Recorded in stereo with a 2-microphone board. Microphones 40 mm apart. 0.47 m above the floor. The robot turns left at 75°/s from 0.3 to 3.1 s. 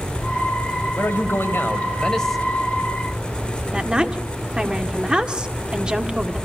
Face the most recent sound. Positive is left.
turn(degrees=-25)  # may be behind; listen again after turning